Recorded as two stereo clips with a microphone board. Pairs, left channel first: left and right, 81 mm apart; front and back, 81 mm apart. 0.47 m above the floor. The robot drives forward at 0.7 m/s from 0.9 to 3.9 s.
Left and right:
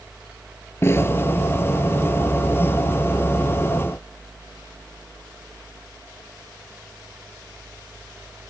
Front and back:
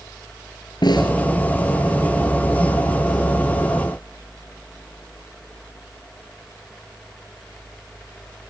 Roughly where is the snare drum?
Ahead left.